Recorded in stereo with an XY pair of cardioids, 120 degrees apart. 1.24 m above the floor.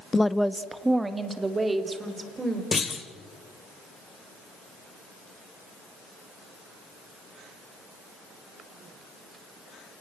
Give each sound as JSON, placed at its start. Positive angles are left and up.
{"t": 0.1, "sound": "a woman speaking", "azimuth_deg": 20, "distance_m": 0.6}
{"t": 2.7, "sound": "a clunk", "azimuth_deg": 30, "distance_m": 2.5}